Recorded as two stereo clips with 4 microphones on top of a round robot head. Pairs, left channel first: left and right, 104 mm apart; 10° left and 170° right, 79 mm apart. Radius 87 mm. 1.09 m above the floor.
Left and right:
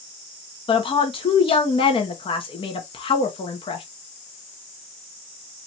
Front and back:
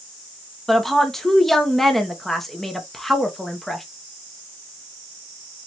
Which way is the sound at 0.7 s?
95° left.